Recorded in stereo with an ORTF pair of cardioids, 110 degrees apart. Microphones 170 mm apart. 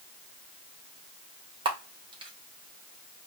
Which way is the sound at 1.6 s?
30° right.